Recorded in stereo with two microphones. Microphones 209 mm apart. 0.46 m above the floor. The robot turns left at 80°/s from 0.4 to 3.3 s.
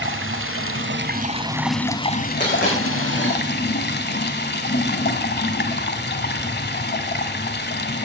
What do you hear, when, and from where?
0.0 s running water: 75° right, 1.0 m; by 8.1 s 55° left, 1.0 m
2.4 s a dropped coin: 35° left (ahead or behind), 8 m; by 3.3 s 70° left (ahead or behind), 8 m